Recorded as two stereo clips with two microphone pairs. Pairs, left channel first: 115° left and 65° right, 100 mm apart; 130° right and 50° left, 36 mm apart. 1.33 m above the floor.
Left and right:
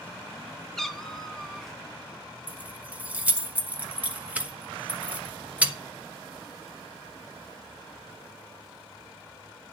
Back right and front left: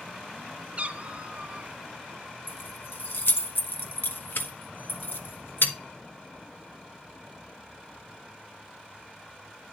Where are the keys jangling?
140° right, 1.0 m.